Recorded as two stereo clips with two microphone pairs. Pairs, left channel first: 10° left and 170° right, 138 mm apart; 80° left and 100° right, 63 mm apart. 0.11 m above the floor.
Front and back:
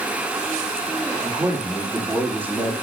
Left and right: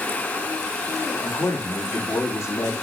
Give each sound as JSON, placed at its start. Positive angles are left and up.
{"t": 1.2, "sound": "a man speaking", "azimuth_deg": 110, "distance_m": 5.0}